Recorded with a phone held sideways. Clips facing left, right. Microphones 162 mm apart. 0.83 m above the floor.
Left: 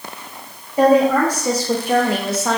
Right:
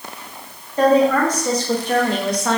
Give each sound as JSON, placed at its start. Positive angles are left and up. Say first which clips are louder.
{"t": 0.8, "sound": "a woman speaking", "louder": "left 1 dB", "side_deg": 10, "distance_m": 1.4}